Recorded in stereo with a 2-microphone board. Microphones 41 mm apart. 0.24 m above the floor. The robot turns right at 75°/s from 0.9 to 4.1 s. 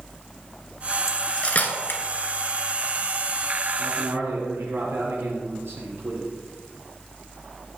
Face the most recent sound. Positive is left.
turn(degrees=-70)  # may be behind; listen again after turning